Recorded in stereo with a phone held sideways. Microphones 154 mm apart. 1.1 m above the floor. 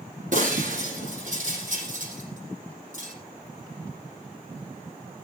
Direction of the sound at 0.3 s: 55° right (ahead or behind).